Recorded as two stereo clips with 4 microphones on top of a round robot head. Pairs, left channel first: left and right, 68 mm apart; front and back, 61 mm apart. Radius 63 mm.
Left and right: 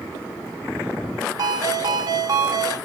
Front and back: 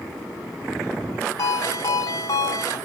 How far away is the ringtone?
About 3 m.